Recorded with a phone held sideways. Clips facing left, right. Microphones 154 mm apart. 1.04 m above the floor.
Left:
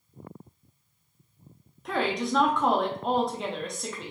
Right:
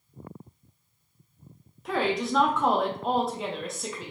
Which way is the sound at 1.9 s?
Centre (ahead or behind).